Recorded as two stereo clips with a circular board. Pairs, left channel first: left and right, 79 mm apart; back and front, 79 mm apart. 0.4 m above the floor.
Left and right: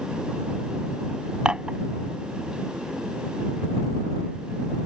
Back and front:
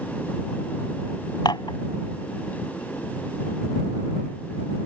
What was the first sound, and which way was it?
Dishes clattering, 165° right.